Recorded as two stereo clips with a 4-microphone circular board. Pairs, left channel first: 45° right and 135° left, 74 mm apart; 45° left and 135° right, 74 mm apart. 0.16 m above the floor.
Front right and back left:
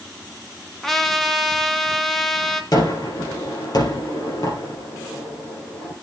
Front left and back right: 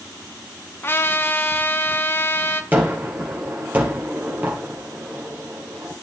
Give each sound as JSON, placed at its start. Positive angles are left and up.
{"t": 0.8, "sound": "a trumpet", "azimuth_deg": 40, "distance_m": 1.1}
{"t": 2.7, "sound": "a gunshot", "azimuth_deg": -70, "distance_m": 4.0}